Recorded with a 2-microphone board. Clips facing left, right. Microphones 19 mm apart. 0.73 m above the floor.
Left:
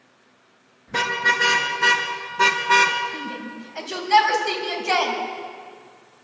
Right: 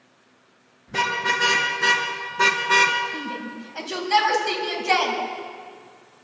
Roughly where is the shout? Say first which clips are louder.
Right 1 dB; centre.